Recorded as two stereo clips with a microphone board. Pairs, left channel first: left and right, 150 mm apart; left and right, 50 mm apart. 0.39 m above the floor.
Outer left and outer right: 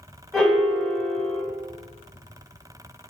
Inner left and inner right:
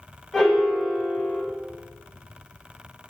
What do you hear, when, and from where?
0.3 s a piano: 5° left (ahead or behind), 1.5 m